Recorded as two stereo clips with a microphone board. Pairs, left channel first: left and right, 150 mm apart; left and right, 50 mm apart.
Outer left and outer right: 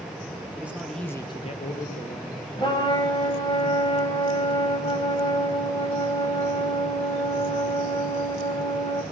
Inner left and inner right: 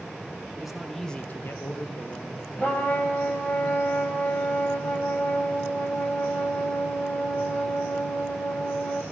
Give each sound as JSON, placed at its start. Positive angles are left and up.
{"t": 0.6, "sound": "a man speaking", "side_deg": -10, "distance_m": 1.5}
{"t": 2.6, "sound": "a trumpet", "side_deg": 30, "distance_m": 1.6}